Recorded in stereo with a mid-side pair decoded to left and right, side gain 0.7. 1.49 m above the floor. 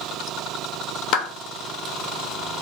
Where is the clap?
60° left, 0.7 m.